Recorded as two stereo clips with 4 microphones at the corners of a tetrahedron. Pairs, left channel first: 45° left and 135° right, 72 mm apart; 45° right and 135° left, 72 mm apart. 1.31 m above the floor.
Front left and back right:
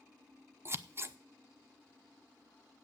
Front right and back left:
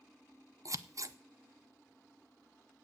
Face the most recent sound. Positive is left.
turn(degrees=170)